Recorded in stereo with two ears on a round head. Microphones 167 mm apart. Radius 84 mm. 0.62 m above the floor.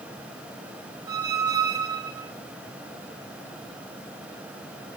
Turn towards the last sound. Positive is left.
turn(degrees=-20)  # may be behind; listen again after turning